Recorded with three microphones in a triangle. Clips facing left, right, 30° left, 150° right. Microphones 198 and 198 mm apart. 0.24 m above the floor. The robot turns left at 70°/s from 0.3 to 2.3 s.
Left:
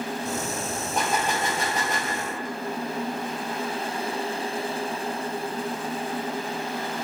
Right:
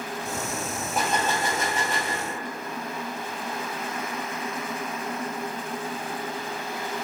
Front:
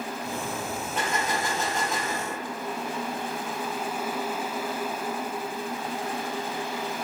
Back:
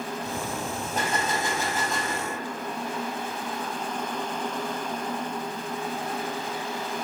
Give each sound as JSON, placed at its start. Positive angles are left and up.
{"t": 0.9, "sound": "a gunshot", "azimuth_deg": -175, "distance_m": 0.5}